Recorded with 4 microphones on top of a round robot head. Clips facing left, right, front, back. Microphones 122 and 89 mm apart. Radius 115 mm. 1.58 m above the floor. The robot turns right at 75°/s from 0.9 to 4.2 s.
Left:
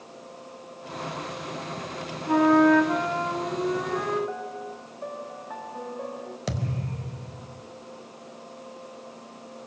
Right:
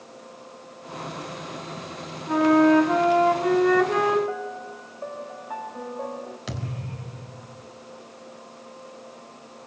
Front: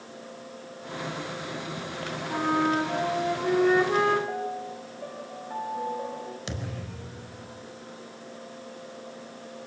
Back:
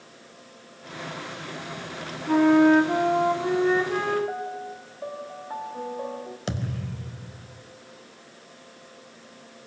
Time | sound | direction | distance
2.3 | a flute | 165° left | 3.5 m
4.3 | a piano | 155° right | 1.4 m
6.5 | a thud | 135° left | 3.5 m